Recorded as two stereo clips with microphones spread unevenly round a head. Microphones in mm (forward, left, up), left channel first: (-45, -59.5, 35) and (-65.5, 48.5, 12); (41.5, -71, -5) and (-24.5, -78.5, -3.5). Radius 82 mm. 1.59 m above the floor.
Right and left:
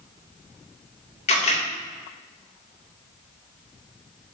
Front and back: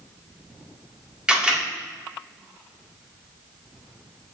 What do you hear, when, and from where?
1.3 s a camera shutter: 95° right, 2.5 m